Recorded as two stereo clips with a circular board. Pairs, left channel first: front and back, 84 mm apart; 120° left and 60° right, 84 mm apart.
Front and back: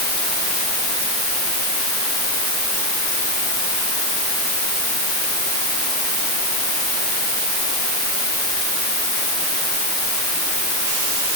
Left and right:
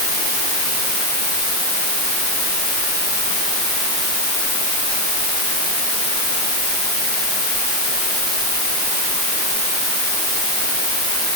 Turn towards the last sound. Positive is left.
No sound to turn to.